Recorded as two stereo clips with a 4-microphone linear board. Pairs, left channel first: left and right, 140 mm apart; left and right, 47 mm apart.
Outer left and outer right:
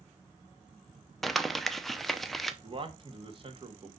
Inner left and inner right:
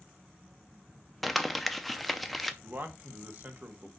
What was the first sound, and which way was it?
Crumpling, centre (ahead or behind).